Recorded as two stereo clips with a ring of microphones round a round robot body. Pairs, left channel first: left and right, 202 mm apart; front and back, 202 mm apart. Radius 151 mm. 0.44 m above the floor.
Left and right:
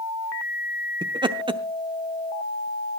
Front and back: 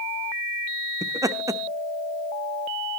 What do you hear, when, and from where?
1.0 s laughter: 125° right, 0.8 m